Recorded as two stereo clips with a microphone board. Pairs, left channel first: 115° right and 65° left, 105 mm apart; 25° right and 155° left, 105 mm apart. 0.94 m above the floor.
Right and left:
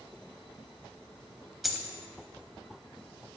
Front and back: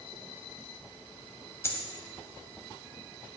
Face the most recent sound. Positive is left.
turn(degrees=-20)